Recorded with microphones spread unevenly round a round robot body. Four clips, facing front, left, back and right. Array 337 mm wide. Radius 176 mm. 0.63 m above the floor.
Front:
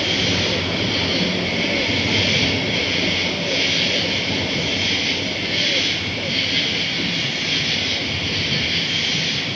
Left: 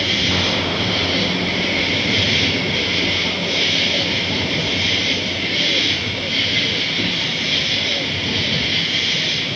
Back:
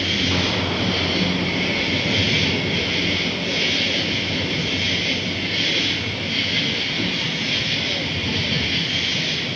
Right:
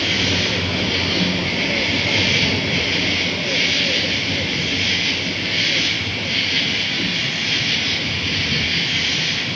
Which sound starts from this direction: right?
An insect, at 0.0 s.